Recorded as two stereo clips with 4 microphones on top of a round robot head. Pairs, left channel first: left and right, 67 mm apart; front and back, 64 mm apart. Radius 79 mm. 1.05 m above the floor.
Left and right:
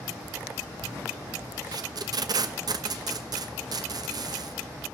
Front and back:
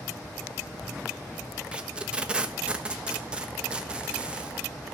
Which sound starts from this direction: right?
Tape being pulled, at 1.7 s.